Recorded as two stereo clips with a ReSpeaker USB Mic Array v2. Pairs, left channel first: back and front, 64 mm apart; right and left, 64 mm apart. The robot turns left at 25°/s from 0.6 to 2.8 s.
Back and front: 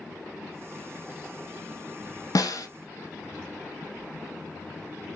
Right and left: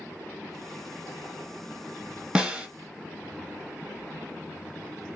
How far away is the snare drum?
About 0.7 m.